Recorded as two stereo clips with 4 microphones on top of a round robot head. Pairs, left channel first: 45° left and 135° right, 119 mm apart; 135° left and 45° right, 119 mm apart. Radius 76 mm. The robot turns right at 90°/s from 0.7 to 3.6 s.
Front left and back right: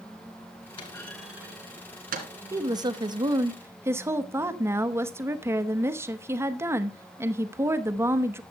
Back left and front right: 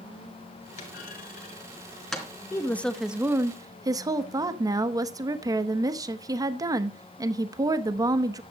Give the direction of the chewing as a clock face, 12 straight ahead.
I don't hear chewing.